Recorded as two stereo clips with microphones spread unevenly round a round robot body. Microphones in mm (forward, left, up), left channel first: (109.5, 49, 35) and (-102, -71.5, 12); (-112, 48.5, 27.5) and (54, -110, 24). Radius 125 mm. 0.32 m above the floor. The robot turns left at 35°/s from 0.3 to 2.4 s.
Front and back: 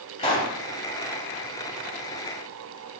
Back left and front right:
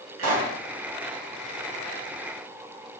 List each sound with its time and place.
0.2 s a pop: 35° right, 3 m; by 0.5 s 45° right, 3 m